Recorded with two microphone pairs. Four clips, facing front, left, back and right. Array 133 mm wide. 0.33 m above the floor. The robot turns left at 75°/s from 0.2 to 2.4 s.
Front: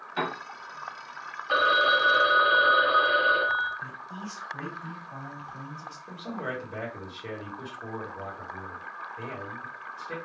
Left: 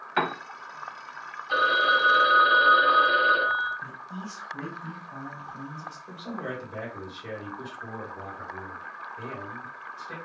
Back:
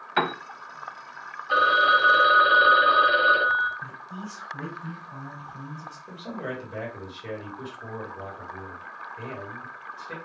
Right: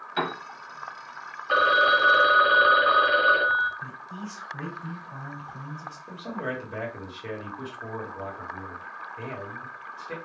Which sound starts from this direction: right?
A phone ringing, at 1.5 s.